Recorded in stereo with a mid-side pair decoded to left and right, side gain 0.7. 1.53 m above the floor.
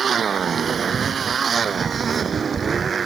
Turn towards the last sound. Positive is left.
turn(degrees=-30)